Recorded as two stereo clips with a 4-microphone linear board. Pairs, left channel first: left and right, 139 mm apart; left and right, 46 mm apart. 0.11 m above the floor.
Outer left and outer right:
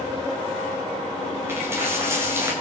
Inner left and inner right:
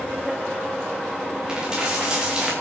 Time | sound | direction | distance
1.5 | a dropped coin | 20° right (ahead or behind) | 9 m